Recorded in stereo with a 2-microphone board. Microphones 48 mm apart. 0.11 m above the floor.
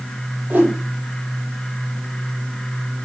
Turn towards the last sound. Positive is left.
turn(degrees=-40)  # may be behind; listen again after turning